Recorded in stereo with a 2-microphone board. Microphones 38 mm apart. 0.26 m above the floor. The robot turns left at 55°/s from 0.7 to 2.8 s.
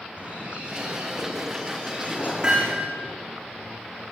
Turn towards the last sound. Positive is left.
turn(degrees=-40)  # may be behind; listen again after turning